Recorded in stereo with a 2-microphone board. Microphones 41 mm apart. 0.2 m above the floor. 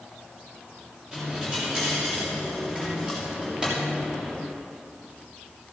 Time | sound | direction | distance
1.1 | a dropped coin | 20° right (ahead or behind) | 6 m